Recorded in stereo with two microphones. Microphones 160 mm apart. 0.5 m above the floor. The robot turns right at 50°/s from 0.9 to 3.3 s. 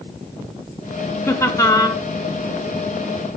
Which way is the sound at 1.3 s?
15° left (ahead or behind).